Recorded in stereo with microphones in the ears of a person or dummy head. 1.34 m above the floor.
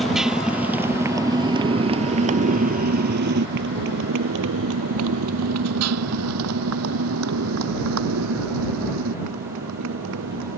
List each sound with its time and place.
0.0 s a motorcycle: centre (ahead or behind); by 10.6 s 80° right